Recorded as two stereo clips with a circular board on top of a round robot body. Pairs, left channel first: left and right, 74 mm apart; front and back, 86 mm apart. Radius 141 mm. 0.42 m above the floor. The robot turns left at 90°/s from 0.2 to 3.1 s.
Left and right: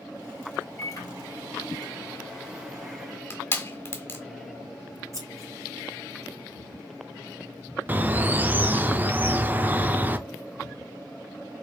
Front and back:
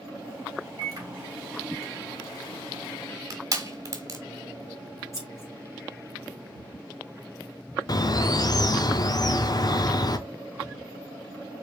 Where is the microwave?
155° left, 3 m; by 3.2 s 55° right, 3 m.